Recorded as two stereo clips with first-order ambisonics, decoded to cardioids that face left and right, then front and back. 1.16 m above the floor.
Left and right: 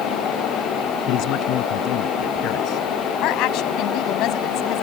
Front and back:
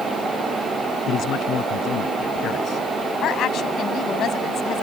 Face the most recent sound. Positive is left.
turn(degrees=55)